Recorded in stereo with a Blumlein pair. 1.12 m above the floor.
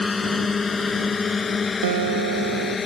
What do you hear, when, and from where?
0.0 s a drone: 15° left; by 2.9 s 20° left
1.8 s a guitar: 60° right